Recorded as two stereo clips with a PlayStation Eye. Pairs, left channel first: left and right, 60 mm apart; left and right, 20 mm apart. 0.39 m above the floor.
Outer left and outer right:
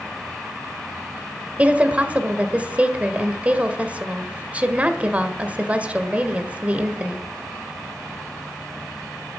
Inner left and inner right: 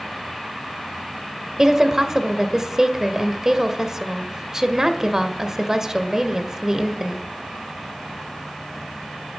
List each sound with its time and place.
1.6 s a woman speaking: 25° right (ahead or behind), 1.5 m